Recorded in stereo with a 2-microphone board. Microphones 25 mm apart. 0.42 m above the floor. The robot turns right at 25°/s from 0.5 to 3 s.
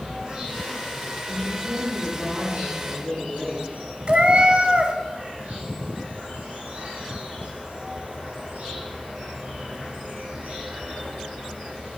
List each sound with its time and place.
0.0 s an insect: 145° right, 8.5 m; by 12.0 s 80° right, 8.5 m
1.3 s a woman speaking: 160° left, 6 m; by 3.7 s 155° right, 6 m
4.1 s a cat meowing: 45° right (ahead or behind), 1.4 m